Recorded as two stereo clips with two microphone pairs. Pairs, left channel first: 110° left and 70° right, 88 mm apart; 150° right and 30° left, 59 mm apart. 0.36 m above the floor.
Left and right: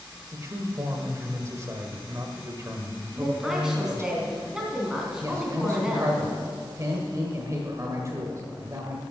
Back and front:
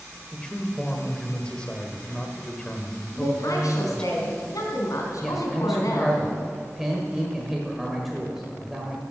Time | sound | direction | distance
0.3 | a man speaking | 85° right | 1.5 m
3.1 | a woman speaking | 155° right | 3 m
5.2 | a man speaking | 55° right | 1.4 m